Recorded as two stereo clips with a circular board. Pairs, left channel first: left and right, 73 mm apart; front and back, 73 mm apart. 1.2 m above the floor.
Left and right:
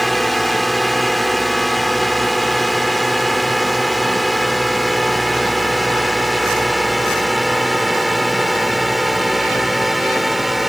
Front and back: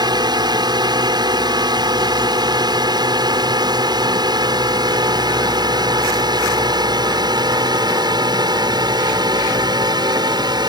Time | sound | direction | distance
0.0 | a drone | straight behind | ?